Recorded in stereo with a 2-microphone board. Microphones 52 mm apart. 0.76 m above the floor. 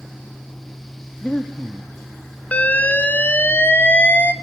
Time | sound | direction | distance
1.2 | breathing | 25° left (ahead or behind) | 1.2 m
2.5 | an alarm | 30° left (ahead or behind) | 1.4 m